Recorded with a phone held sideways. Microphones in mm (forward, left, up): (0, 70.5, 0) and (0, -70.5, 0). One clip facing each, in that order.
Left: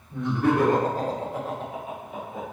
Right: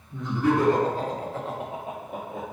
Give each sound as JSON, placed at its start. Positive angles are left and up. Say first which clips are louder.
{"t": 0.1, "sound": "laughter", "louder": "left 1 dB", "side_deg": 70, "distance_m": 1.3}